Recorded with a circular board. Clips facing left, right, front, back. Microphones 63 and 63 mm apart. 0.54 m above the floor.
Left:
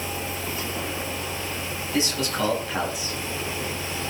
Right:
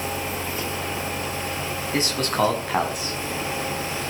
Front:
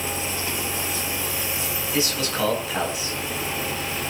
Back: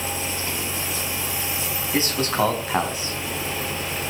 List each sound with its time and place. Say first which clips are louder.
1.9 s a man speaking: right 2 dB, back 3 dB; 130° right, 4.5 m